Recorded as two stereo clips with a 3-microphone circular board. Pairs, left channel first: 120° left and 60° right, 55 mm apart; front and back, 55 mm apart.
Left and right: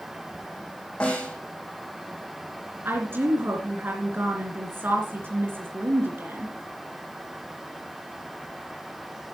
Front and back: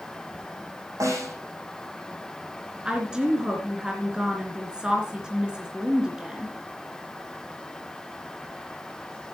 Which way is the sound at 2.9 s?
105° right.